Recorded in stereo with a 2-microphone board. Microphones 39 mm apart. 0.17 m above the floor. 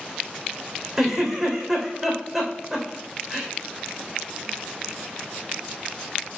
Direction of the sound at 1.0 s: 10° right (ahead or behind).